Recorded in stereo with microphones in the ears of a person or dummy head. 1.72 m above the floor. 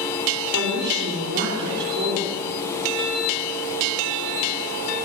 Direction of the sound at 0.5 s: 55° right (ahead or behind).